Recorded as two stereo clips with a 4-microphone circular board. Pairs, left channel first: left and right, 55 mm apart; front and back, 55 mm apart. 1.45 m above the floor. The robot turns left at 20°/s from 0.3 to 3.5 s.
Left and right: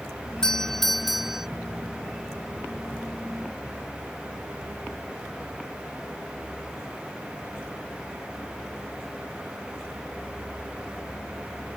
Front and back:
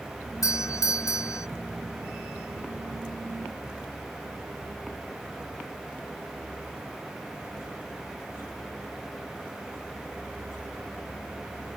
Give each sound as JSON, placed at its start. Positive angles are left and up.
{"t": 0.4, "sound": "a doorbell", "azimuth_deg": 15}